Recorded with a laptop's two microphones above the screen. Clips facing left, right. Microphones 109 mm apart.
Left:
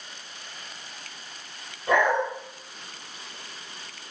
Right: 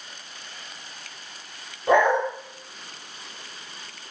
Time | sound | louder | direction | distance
1.9 | a dog barking | right 3 dB | 30° right (ahead or behind) | 1.4 m